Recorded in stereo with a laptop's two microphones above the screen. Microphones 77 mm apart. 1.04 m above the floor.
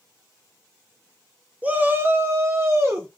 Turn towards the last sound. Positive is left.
turn(degrees=-35)  # may be behind; listen again after turning